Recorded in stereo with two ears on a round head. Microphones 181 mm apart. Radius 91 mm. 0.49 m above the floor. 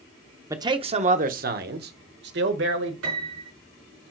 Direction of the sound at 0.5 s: 15° right (ahead or behind).